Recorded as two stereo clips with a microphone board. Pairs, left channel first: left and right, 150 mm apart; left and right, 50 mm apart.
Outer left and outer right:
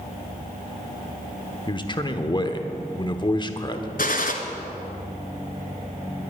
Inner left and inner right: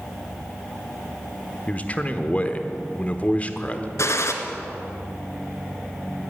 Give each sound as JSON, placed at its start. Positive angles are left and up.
{"t": 1.7, "sound": "a man speaking", "side_deg": 30, "distance_m": 1.1}
{"t": 4.0, "sound": "a gunshot", "side_deg": 70, "distance_m": 1.5}